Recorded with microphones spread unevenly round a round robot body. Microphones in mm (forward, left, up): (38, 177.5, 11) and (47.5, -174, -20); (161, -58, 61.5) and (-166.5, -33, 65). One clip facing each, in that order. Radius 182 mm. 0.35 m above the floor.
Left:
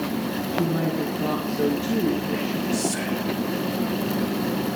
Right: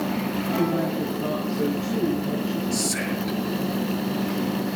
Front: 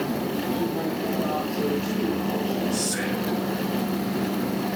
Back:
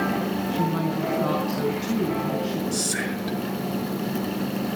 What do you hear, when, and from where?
0.5 s a woman speaking: straight behind, 4 m
2.7 s whispering: 135° right, 6 m